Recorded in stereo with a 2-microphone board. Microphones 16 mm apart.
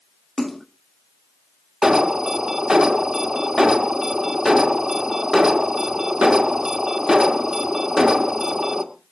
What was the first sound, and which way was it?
A splash, 30° left (ahead or behind).